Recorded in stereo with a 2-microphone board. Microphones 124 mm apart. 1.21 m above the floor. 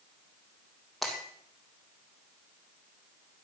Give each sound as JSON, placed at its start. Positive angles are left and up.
{"t": 1.0, "sound": "breaking glass", "side_deg": 0, "distance_m": 3.5}